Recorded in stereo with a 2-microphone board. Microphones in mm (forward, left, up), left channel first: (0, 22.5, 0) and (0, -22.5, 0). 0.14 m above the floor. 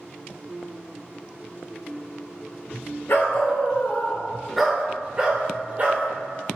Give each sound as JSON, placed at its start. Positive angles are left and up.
{"t": 3.1, "sound": "a dog barking", "side_deg": 60, "distance_m": 0.8}